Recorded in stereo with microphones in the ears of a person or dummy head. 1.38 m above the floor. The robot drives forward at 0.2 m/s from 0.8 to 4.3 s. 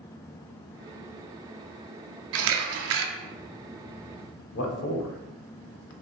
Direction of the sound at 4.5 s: 60° left (ahead or behind).